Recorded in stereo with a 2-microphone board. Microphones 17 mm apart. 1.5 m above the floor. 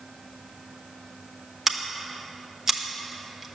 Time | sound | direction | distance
1.7 | scissors | 20° right (ahead or behind) | 1.0 m